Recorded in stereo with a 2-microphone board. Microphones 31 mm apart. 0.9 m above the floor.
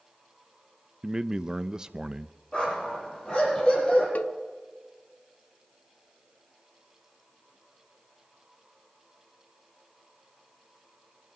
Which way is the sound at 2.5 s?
25° left (ahead or behind).